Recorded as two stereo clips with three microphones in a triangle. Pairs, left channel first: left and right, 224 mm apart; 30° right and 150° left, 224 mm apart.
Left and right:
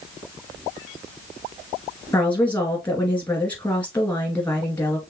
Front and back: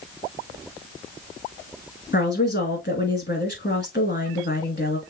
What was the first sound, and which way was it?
A woman speaking, 5° left.